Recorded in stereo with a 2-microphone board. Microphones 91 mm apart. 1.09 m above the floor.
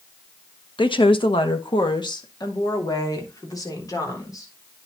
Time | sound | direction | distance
0.8 | a woman speaking | 60° left (ahead or behind) | 1.2 m